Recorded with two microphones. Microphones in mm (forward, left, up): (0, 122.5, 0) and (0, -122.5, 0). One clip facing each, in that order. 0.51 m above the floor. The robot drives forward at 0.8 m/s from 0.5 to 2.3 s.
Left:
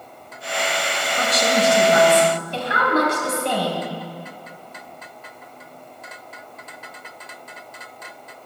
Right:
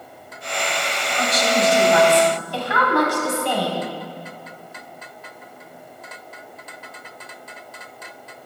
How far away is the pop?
I don't hear a pop.